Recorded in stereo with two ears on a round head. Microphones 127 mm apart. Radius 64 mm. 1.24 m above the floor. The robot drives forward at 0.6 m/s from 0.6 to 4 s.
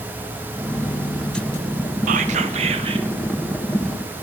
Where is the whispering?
55° right (ahead or behind), 0.7 m; by 3.1 s 35° right (ahead or behind), 0.9 m.